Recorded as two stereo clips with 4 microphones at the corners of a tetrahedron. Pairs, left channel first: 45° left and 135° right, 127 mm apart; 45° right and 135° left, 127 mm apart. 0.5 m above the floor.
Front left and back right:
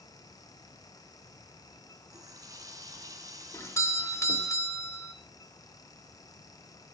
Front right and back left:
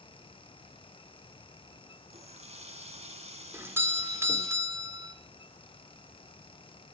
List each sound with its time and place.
2.1 s a running tap: 165° left, 2.5 m
3.5 s a doorbell: 85° left, 1.8 m